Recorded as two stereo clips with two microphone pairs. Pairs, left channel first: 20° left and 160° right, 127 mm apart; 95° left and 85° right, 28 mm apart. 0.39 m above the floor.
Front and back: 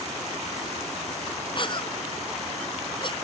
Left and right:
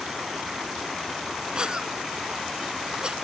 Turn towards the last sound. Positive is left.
turn(degrees=-30)